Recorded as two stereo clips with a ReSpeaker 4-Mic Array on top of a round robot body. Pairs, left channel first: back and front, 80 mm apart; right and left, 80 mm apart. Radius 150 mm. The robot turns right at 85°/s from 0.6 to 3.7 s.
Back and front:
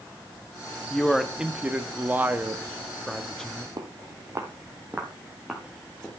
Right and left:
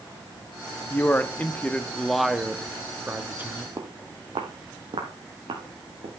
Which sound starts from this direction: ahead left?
Footsteps, at 3.8 s.